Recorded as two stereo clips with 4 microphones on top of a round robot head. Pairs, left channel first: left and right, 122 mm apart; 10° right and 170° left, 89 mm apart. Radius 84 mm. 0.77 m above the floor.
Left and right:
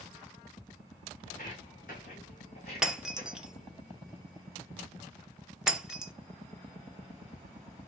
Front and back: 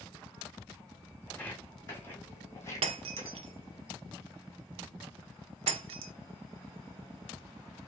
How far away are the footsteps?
About 2 m.